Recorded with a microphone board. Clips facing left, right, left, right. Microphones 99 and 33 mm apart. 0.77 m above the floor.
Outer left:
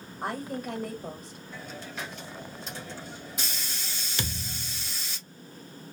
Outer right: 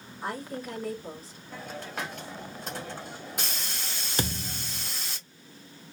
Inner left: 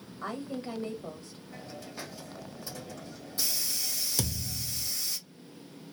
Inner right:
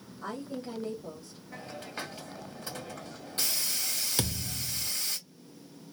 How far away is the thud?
About 0.8 m.